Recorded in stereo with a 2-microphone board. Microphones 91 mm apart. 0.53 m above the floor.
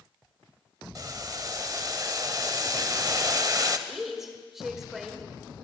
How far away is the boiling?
About 0.6 m.